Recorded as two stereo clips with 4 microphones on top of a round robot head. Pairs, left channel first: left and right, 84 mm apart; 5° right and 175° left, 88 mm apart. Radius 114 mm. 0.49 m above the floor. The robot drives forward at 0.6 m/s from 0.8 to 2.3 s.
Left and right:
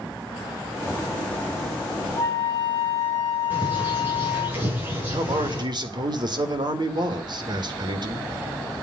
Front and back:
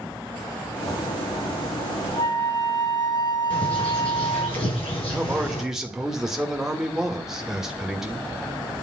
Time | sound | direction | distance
2.2 | a flute | 30° left | 3 m
3.5 | a bird | 20° right | 7 m
5.1 | a man speaking | 100° right | 2.5 m